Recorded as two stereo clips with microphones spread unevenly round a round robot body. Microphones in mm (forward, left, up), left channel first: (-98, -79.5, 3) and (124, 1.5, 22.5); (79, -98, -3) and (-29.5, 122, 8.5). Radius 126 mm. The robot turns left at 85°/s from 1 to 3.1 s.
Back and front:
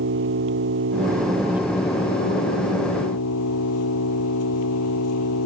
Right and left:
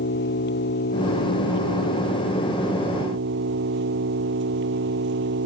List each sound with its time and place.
0.0 s an engine running: 15° right; by 5.5 s 165° left